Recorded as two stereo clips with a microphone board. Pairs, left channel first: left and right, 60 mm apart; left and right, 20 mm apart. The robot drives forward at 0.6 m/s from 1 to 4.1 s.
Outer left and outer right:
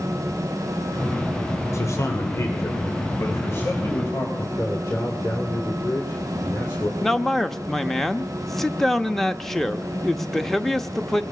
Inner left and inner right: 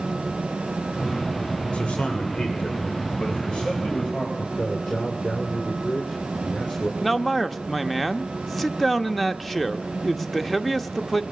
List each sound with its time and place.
1.7 s a man speaking: 55° left (ahead or behind), 2.5 m; by 4.3 s 35° left (ahead or behind), 3.5 m
4.4 s a man speaking: 55° left (ahead or behind), 3 m
7.0 s a man speaking: 5° left (ahead or behind), 0.8 m